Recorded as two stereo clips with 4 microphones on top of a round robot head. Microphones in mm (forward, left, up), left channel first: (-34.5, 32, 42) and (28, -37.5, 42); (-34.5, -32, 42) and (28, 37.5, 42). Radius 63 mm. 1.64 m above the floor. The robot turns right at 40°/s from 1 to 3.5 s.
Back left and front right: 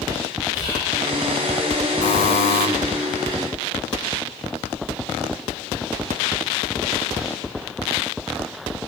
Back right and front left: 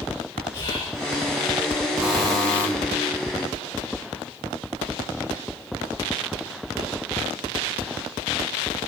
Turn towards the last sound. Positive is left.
turn(degrees=-170)